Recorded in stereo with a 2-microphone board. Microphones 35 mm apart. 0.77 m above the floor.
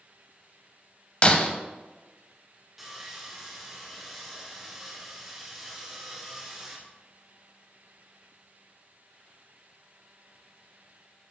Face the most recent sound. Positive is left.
turn(degrees=-5)  # may be behind; listen again after turning